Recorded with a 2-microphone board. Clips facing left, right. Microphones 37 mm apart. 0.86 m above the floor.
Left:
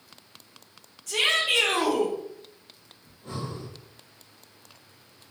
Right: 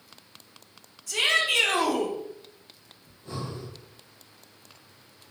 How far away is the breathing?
About 2.5 m.